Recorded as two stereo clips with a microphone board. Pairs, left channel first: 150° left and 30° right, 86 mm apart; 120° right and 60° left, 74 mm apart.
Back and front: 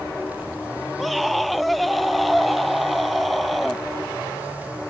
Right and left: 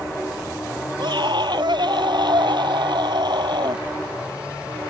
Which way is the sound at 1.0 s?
60° left.